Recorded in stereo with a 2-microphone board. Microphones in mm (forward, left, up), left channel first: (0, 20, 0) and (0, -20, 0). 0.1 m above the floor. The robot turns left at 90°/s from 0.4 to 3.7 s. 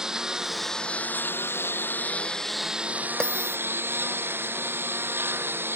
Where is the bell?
160° left; by 3.6 s 125° left.